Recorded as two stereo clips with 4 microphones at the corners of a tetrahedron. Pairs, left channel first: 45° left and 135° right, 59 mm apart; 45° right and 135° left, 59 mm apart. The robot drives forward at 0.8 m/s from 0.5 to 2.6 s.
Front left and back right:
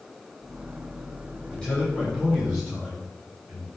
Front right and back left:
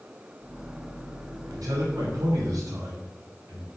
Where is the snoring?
No snoring in this recording.